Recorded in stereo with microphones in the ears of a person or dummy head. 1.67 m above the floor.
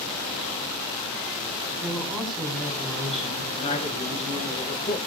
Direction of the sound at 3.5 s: 40° left (ahead or behind).